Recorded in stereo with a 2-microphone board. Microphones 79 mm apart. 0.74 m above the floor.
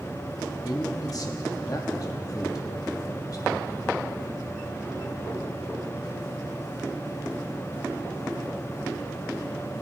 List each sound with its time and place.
0.7 s a man speaking: 50° left (ahead or behind), 0.9 m